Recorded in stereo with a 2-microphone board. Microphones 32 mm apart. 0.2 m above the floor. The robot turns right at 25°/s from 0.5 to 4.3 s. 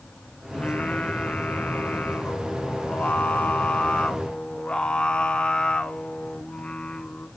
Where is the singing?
45° left, 0.8 m; by 7.3 s 140° left, 0.8 m.